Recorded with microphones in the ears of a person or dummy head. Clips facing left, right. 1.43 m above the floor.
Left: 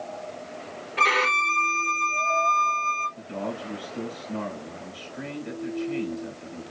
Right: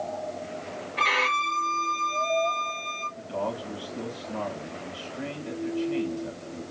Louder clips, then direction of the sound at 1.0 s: Left 4 dB; 55° left (ahead or behind).